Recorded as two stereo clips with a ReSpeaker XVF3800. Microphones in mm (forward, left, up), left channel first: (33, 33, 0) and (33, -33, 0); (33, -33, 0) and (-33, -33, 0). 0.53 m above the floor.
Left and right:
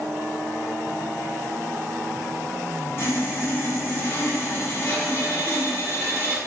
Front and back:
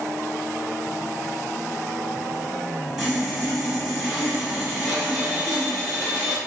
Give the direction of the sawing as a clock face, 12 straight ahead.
9 o'clock.